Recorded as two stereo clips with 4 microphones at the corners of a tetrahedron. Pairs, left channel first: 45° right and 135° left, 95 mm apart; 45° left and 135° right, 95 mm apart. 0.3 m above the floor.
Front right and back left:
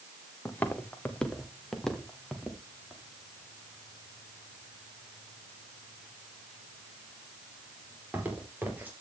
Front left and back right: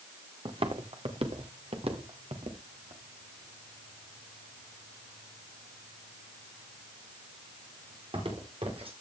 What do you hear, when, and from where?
0.5 s footsteps: 115° right, 1.9 m; by 8.9 s 155° right, 6 m